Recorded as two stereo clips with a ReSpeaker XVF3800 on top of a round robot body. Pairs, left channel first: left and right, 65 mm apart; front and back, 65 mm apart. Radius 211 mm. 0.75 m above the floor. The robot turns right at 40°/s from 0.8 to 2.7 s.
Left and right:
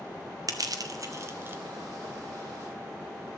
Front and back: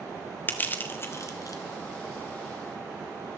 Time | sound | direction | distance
0.5 | crushing | 60° right | 2 m